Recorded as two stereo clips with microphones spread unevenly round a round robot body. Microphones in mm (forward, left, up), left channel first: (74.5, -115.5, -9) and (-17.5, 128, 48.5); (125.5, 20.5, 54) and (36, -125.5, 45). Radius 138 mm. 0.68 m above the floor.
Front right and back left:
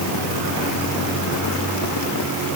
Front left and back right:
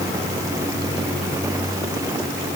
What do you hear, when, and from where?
Only background noise.